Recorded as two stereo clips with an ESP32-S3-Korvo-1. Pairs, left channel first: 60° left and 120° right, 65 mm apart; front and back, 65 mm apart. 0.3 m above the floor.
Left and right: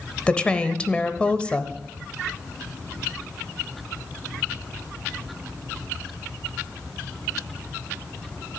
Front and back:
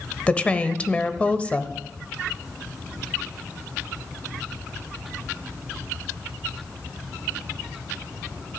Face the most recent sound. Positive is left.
turn(degrees=30)